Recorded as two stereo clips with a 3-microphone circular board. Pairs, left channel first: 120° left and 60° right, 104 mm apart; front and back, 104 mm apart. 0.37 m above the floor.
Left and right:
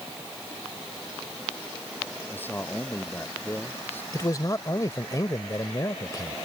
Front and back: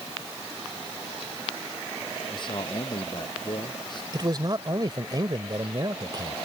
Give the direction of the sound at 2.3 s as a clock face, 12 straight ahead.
10 o'clock.